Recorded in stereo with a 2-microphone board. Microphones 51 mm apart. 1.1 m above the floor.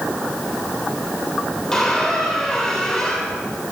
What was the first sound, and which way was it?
A squeak, 10° left (ahead or behind).